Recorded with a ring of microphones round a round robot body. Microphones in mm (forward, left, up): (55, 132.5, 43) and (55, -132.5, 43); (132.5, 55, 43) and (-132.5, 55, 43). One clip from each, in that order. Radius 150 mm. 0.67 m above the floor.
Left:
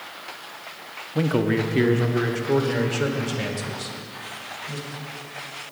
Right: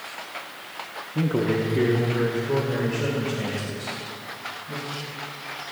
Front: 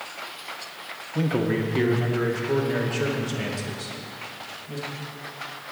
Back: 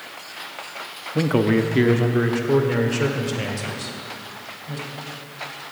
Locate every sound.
1.1 s a man speaking: 135° left, 0.9 m; by 4.9 s 110° left, 3.5 m